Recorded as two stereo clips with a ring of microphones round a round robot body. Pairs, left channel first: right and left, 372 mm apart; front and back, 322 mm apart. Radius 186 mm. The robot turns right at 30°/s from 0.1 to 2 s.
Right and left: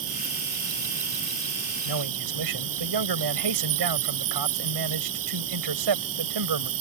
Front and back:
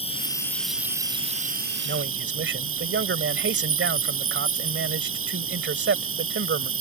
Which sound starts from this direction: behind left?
A man speaking, at 1.9 s.